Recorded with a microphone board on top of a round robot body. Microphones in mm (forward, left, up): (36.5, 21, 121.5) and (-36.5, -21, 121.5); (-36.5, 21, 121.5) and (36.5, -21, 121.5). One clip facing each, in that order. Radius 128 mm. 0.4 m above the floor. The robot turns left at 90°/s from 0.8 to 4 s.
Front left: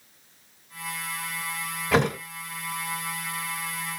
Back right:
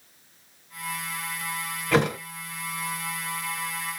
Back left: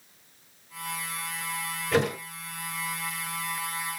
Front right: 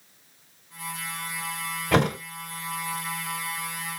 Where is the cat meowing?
No cat meowing in this recording.